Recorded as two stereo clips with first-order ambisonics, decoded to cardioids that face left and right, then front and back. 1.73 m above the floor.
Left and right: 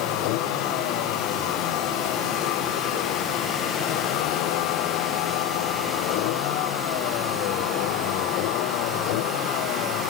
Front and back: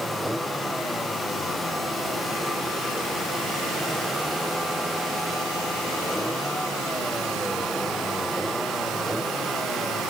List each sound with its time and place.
0.0 s a vehicle: 90° left